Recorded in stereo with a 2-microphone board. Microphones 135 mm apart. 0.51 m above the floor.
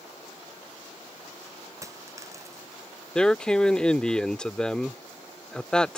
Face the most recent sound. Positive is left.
turn(degrees=5)  # may be behind; listen again after turning